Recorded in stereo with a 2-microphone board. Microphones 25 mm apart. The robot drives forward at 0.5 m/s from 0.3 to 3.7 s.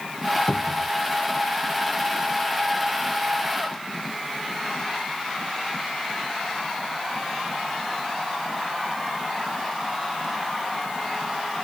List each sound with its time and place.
0.5 s a cupboard door: 50° left (ahead or behind)